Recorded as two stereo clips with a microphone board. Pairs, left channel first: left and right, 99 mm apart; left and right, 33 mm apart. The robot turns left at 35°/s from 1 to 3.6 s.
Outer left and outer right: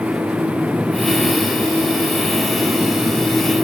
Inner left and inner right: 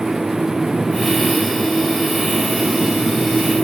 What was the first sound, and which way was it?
Only background noise.